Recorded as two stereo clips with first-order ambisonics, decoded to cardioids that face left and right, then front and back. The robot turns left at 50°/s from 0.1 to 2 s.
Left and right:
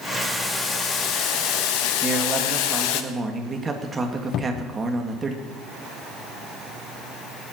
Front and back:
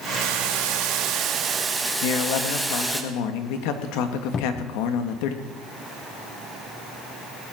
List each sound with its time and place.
0.2 s boiling: straight behind, 1.4 m; by 3.0 s 90° left, 1.4 m
2.0 s a man speaking: 15° right, 1.7 m
4.3 s a cupboard door: 60° left, 0.6 m